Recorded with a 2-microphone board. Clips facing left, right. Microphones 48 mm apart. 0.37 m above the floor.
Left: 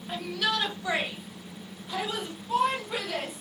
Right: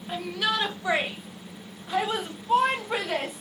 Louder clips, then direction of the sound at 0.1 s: Right 2 dB; 10° right (ahead or behind).